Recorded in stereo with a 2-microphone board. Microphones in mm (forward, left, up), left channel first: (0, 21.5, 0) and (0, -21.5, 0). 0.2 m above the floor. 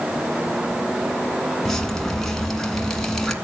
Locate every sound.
1.6 s dripping: 10° left (ahead or behind), 1.7 m